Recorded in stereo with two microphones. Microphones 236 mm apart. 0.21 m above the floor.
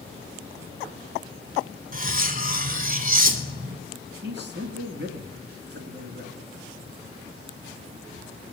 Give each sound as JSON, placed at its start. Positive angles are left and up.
{"t": 1.9, "sound": "cutlery clinking", "side_deg": -35, "distance_m": 0.9}
{"t": 4.2, "sound": "a man speaking", "side_deg": -50, "distance_m": 1.9}